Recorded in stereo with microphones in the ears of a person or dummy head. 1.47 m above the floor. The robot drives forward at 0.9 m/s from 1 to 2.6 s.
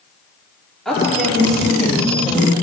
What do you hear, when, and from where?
0.8 s a woman speaking: centre (ahead or behind), 3 m; by 2.5 s 5° left (ahead or behind), 1.5 m